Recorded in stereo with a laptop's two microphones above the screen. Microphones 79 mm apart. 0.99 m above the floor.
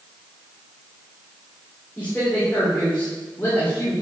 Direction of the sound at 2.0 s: 15° left (ahead or behind).